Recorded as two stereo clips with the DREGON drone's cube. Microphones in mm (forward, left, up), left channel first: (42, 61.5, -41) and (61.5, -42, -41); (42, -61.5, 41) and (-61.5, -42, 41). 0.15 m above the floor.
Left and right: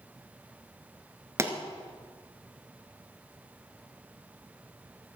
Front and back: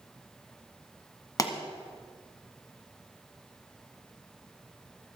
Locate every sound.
1.4 s a pop: 35° right, 1.6 m